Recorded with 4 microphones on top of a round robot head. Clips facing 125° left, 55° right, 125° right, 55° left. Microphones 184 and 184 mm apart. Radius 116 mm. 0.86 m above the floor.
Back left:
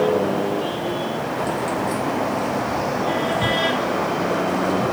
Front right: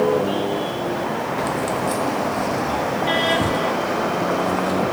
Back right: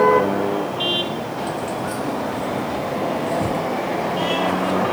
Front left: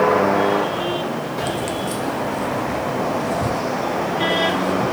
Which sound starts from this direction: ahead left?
Keys jangling, at 1.4 s.